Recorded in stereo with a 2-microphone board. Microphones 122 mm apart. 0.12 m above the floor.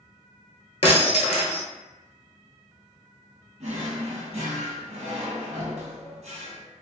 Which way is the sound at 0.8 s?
60° left (ahead or behind).